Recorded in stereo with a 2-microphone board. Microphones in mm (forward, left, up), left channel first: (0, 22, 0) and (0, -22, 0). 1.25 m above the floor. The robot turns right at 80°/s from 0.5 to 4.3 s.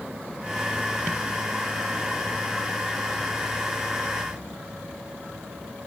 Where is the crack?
I don't hear a crack.